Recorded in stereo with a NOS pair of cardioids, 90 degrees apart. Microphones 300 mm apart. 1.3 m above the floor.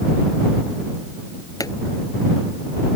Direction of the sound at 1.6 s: 10° left.